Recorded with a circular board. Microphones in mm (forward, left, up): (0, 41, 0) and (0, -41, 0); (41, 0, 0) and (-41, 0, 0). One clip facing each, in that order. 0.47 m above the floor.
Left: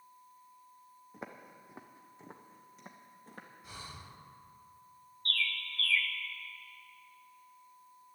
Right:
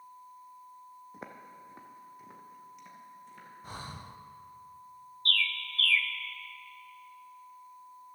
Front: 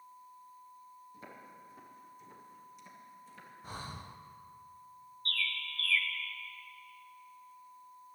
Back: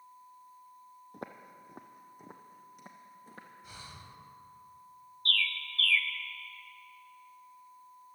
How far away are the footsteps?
About 0.9 m.